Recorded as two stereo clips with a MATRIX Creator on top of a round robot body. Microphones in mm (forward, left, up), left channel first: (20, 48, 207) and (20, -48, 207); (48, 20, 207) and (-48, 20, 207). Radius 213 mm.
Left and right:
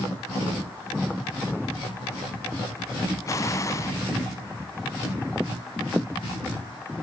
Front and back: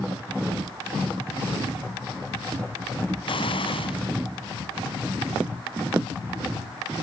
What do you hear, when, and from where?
3.3 s an explosion: 30° left, 0.8 m